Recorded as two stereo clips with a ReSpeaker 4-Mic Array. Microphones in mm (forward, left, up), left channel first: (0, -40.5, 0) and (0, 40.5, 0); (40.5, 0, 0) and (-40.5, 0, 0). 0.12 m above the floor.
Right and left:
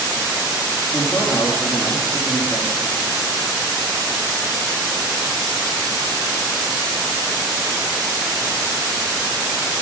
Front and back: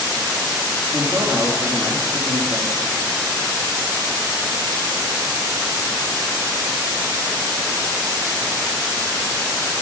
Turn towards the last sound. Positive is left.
turn(degrees=180)